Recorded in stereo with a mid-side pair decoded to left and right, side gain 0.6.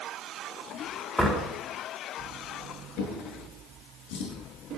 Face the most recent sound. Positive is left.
turn(degrees=65)